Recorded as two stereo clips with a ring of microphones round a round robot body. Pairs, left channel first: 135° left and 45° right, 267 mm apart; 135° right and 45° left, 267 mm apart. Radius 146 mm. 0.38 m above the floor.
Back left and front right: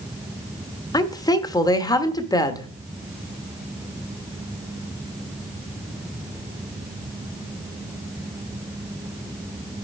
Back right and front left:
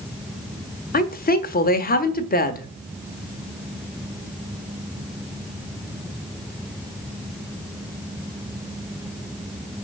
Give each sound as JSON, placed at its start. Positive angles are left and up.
{"t": 0.9, "sound": "a woman speaking", "azimuth_deg": -160, "distance_m": 1.1}